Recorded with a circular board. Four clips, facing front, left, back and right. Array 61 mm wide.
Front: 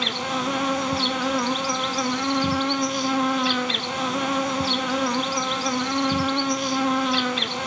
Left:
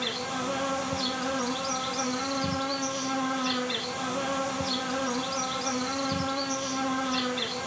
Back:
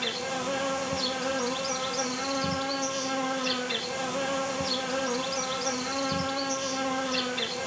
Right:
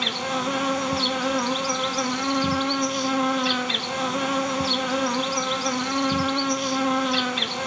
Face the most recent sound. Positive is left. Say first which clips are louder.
# right 5 dB, front 6 dB
turn(degrees=-35)